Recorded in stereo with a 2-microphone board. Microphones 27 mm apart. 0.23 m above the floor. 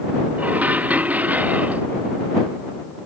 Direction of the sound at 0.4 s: 80° right.